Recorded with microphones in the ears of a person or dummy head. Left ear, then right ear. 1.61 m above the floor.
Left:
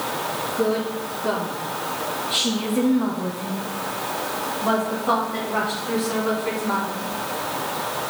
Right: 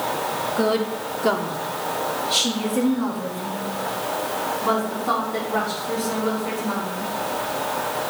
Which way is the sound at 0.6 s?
55° right (ahead or behind).